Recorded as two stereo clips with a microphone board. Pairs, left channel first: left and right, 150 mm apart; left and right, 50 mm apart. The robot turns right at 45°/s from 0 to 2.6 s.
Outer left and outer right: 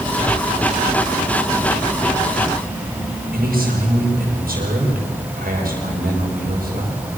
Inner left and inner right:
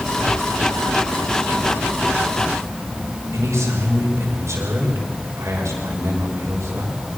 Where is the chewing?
No chewing in this recording.